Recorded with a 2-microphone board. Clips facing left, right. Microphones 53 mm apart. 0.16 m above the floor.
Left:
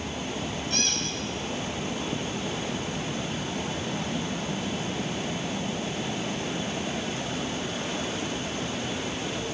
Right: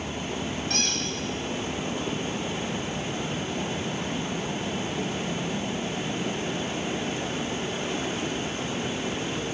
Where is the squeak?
70° right (ahead or behind), 3 m.